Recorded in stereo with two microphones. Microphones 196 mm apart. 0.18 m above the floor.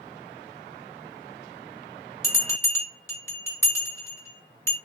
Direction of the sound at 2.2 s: 10° left (ahead or behind).